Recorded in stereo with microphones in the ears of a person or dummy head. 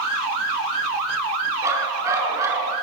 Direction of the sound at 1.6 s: 15° right (ahead or behind).